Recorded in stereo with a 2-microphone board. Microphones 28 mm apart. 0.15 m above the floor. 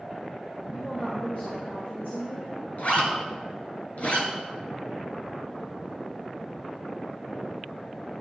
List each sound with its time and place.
0.7 s a woman speaking: 50° left (ahead or behind), 3 m; by 2.5 s 70° left (ahead or behind), 3 m
2.8 s a zipper: 55° left (ahead or behind), 2.5 m